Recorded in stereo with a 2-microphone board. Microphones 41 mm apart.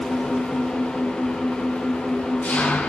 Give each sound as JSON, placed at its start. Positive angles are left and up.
{"t": 0.0, "sound": "an engine running", "side_deg": 45, "distance_m": 2.5}